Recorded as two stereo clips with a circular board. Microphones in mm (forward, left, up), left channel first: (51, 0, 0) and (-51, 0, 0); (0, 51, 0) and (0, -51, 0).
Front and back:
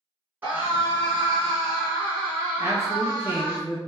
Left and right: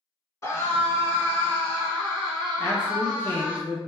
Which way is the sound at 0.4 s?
125° left.